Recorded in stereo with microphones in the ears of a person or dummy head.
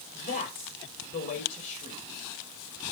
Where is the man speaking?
40° left (ahead or behind), 6 m.